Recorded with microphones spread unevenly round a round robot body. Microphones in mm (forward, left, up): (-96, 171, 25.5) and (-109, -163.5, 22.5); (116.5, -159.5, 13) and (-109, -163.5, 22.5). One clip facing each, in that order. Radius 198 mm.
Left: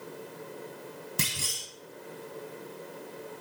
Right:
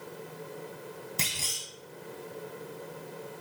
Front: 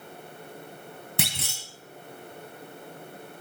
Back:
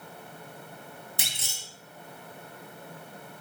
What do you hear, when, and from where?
1.2 s a clunk: 15° left, 1.1 m